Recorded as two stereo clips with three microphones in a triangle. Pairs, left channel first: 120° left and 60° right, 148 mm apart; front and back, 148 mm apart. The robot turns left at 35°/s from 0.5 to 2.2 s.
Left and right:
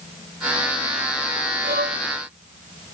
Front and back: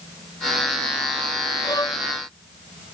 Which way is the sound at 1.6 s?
60° right.